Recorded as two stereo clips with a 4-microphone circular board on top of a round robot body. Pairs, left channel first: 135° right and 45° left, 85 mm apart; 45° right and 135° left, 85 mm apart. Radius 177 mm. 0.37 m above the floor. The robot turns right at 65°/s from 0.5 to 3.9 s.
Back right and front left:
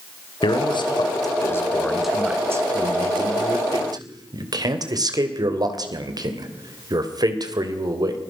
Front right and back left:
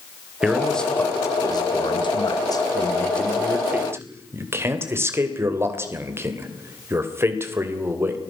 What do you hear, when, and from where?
0.4 s a man speaking: 145° right, 3 m; by 8.2 s 80° left, 3 m